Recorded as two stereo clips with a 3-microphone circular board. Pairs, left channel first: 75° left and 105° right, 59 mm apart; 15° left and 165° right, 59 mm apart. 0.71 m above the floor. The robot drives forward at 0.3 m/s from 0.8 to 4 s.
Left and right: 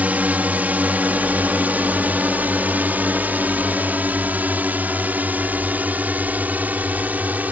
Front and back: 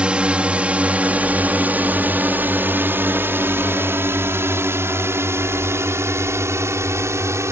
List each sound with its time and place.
0.0 s a drone: 120° right; by 7.5 s 160° right